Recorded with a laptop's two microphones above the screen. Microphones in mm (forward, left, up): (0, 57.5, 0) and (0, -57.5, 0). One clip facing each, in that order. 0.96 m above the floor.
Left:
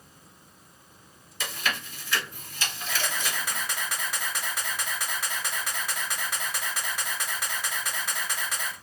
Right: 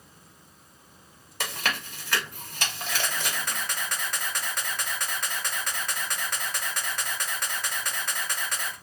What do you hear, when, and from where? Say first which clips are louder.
1.4 s chewing: right 1 dB; 65° right (ahead or behind), 1.0 m
2.9 s a camera shutter: left 1 dB; 10° left (ahead or behind), 1.0 m